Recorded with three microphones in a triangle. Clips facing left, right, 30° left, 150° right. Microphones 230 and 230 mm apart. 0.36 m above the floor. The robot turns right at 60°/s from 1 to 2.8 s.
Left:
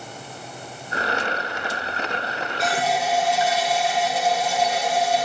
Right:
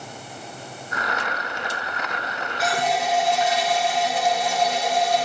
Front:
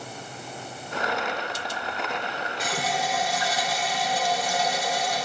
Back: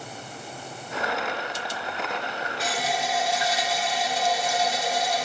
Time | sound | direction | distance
2.6 | a running tap | 5° right | 2.5 m